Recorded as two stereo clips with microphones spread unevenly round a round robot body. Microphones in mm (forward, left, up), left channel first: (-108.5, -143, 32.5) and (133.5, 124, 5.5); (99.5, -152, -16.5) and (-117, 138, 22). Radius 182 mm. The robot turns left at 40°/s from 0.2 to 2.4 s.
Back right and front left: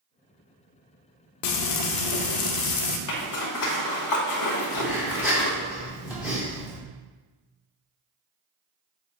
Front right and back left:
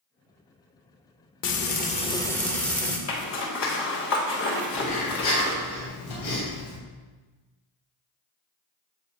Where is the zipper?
100° right, 1.9 m.